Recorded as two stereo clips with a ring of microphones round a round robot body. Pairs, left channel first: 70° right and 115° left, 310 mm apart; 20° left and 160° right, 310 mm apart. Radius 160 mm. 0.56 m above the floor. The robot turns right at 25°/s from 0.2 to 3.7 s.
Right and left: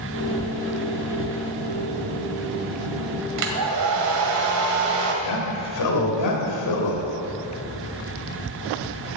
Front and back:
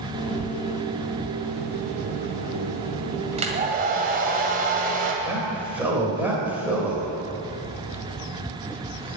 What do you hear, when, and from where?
3.4 s a hair dryer: 135° left, 1.9 m; by 5.1 s 140° left, 1.9 m
5.2 s a man speaking: 75° right, 2.5 m